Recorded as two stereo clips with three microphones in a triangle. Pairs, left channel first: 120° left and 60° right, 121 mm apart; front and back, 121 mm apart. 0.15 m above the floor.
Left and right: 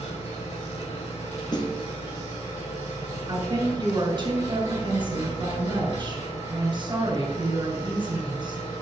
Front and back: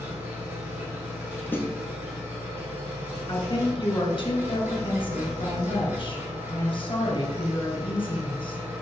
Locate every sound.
0.0 s an engine running: 105° left, 4.5 m
1.5 s a snare drum: 70° left, 1.5 m
3.3 s a woman speaking: 25° right, 2.5 m